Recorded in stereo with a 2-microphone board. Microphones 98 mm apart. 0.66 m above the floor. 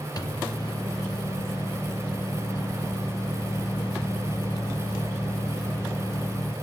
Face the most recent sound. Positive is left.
turn(degrees=40)  # may be behind; listen again after turning